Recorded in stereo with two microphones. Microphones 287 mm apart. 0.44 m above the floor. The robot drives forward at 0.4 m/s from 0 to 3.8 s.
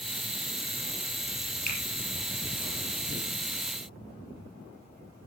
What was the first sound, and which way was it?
A finger snap, 85° left.